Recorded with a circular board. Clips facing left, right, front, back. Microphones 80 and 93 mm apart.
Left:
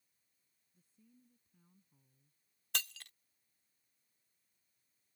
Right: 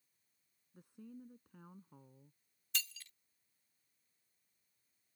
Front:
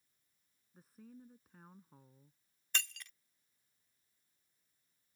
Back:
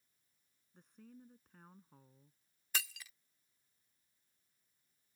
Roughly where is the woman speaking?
Right.